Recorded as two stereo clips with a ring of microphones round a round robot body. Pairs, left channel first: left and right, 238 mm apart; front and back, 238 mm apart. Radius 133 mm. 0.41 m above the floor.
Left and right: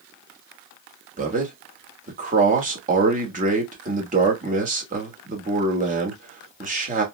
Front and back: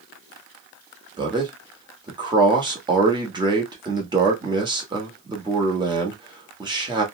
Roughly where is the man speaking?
Behind right.